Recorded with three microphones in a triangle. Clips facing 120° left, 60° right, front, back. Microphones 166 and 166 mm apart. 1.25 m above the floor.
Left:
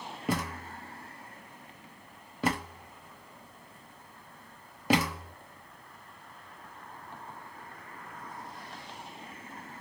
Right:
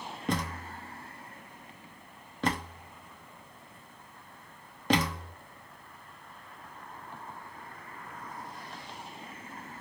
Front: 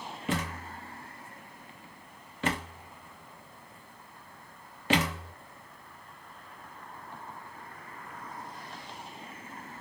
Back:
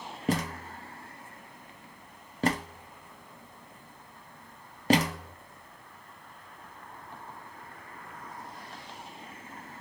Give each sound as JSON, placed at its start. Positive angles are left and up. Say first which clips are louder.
{"t": 0.3, "sound": "a thud", "louder": "even, back 4 dB", "azimuth_deg": -160, "distance_m": 0.7}